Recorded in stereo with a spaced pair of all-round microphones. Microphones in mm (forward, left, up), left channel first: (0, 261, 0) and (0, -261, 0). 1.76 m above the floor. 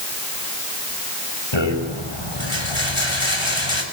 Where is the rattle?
60° left (ahead or behind), 7 m.